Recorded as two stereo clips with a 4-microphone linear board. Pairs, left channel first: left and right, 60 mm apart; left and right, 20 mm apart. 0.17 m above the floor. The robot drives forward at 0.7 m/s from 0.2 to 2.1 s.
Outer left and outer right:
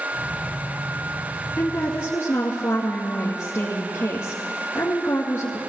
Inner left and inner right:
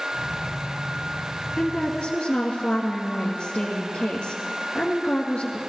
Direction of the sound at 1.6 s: 55° left (ahead or behind).